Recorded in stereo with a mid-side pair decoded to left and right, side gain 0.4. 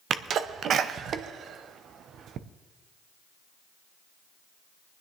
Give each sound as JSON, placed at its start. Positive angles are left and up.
{"t": 0.1, "sound": "a sneeze", "azimuth_deg": -70, "distance_m": 0.8}